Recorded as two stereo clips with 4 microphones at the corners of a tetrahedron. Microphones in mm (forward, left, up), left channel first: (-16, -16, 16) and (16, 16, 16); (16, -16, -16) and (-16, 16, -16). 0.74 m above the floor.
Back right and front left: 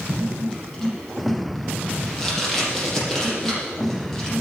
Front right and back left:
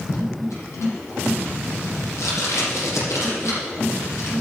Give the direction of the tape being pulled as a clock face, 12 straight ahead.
2 o'clock.